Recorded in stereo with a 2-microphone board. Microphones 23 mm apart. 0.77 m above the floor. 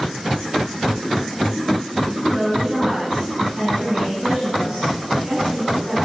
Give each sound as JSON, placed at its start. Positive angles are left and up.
{"t": 2.2, "sound": "a woman speaking", "side_deg": -25, "distance_m": 9.0}